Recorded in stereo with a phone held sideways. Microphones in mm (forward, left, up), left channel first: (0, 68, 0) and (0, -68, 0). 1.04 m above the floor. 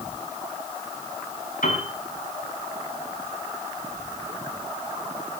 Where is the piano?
80° left, 6.5 m.